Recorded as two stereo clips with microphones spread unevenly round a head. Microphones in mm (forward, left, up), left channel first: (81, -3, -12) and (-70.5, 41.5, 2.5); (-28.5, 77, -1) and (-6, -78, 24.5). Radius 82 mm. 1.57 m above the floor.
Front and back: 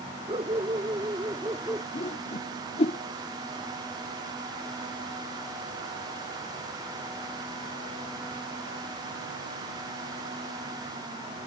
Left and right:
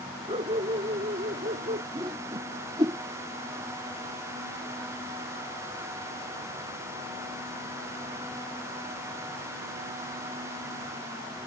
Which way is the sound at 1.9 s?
50° right.